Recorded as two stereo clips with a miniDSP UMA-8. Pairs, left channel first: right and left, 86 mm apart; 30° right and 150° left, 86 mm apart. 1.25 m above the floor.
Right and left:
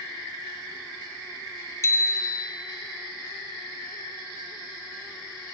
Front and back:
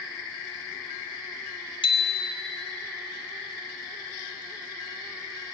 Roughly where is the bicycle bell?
Ahead right.